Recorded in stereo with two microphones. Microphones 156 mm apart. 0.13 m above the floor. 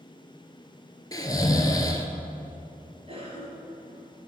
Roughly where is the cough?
Right.